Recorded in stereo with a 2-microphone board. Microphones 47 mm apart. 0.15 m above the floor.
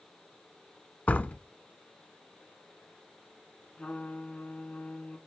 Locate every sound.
1.1 s a door slam: 30° left (ahead or behind), 0.8 m
3.8 s a trumpet: 25° left (ahead or behind), 1.3 m